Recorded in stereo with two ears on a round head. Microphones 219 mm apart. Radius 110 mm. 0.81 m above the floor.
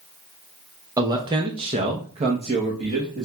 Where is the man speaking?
15° right (ahead or behind), 0.8 m; by 3.3 s 20° right (ahead or behind), 1.2 m.